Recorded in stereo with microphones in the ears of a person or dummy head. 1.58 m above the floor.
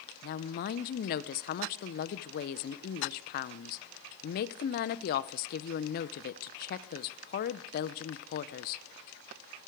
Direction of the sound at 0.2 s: 50° left (ahead or behind).